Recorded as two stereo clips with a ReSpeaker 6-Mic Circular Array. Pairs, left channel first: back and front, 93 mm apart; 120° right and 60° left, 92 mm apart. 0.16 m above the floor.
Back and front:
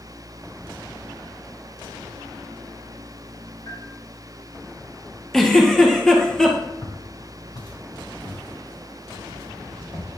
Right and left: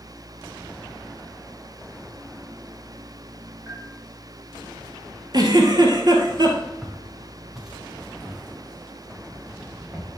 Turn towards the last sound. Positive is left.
turn(degrees=145)